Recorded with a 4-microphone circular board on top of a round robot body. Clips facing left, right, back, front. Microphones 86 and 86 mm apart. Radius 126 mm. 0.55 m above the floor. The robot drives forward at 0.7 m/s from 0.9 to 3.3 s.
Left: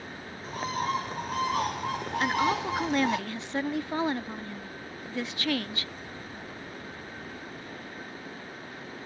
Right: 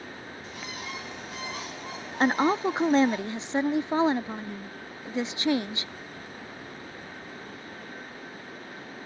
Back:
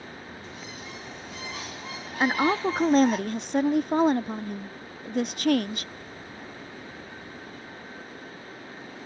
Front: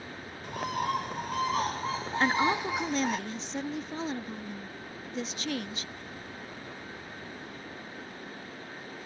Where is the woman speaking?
110° right; by 5.9 s 160° right.